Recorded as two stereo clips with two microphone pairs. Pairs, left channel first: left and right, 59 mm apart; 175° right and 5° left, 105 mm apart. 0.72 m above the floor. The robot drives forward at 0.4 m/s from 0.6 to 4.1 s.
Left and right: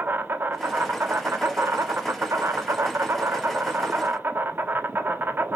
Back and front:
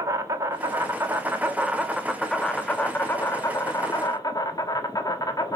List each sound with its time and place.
0.0 s an insect: 50° right, 1.2 m; by 5.6 s 135° right, 1.2 m